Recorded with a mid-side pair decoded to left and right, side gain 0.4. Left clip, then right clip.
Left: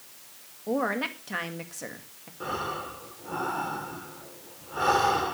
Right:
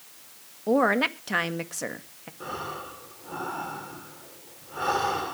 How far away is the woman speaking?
About 1.7 m.